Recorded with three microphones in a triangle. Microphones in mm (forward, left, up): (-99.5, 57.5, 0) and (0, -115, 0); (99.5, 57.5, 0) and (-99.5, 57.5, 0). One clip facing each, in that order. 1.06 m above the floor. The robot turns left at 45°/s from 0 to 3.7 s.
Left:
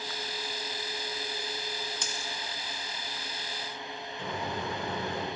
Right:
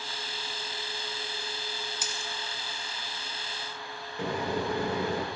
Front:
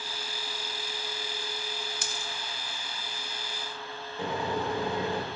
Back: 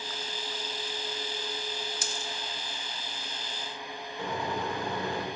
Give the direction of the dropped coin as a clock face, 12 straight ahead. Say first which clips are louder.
Even, back 1 dB; 11 o'clock.